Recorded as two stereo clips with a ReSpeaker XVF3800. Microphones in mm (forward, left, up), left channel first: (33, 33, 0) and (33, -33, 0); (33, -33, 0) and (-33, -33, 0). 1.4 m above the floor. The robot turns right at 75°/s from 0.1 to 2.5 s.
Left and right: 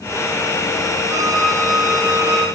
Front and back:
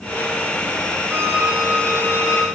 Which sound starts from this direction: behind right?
A violin, at 1.1 s.